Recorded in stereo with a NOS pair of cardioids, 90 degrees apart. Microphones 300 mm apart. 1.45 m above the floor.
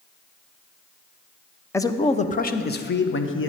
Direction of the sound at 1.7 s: 10° left.